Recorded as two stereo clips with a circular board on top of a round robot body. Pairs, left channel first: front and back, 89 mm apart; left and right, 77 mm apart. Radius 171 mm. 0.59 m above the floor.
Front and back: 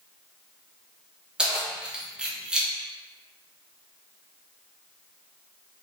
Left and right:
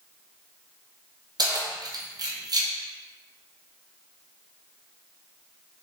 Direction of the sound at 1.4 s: 100° right.